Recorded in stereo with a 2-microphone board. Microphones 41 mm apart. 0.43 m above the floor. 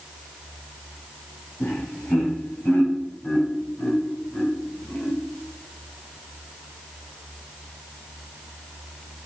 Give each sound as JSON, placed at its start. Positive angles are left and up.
{"t": 1.6, "sound": "laughter", "side_deg": 55, "distance_m": 3.5}